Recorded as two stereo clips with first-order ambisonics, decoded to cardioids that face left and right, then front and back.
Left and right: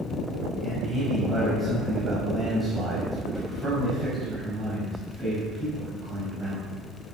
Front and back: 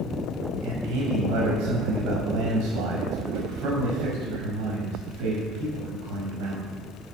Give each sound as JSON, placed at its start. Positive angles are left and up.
{"t": 0.6, "sound": "a man speaking", "azimuth_deg": -165, "distance_m": 5.0}